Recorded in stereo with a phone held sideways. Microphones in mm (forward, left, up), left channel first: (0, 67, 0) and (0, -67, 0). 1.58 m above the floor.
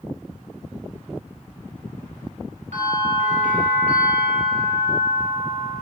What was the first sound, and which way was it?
A bell, 70° right (ahead or behind).